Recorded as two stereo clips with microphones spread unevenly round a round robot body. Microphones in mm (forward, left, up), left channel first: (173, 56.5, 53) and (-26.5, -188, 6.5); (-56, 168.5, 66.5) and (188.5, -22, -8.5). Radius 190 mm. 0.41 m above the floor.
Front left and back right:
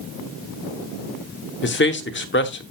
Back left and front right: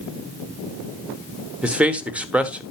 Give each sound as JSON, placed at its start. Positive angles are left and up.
{"t": 1.6, "sound": "a man speaking", "azimuth_deg": 20, "distance_m": 1.3}